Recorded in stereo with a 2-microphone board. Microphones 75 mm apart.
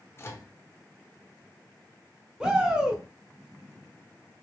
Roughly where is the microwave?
Left.